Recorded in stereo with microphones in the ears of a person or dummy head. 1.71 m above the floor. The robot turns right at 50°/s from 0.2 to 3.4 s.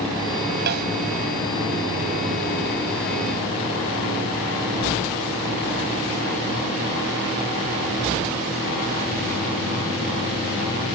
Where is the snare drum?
60° right (ahead or behind); by 0.9 s 50° right (ahead or behind).